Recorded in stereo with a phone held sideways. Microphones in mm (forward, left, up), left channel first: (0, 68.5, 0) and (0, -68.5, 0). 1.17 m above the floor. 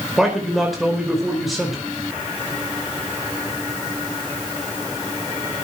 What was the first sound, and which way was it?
A man speaking, centre (ahead or behind).